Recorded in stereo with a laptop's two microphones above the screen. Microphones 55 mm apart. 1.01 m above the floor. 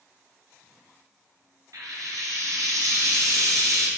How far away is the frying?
About 3 m.